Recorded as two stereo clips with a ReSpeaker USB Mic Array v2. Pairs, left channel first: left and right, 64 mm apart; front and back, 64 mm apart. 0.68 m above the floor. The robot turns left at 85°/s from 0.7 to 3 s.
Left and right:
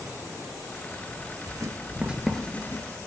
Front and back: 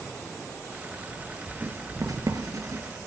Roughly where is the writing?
Right.